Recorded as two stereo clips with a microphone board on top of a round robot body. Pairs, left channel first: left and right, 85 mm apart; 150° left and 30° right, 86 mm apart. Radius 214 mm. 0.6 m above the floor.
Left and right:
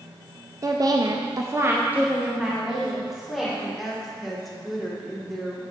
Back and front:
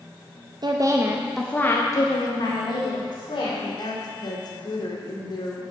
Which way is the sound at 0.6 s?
50° right.